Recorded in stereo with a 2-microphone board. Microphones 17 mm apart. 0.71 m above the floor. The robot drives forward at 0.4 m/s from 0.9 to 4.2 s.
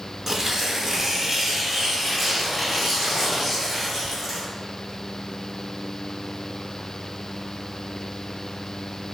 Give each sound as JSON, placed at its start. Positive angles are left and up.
{"t": 0.3, "sound": "tearing paper", "side_deg": -25, "distance_m": 0.6}